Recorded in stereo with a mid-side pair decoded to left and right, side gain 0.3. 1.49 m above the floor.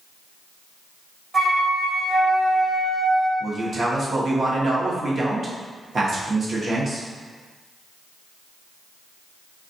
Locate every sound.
1.3 s a flute: 60° right, 1.5 m
3.4 s a man speaking: 60° right, 0.9 m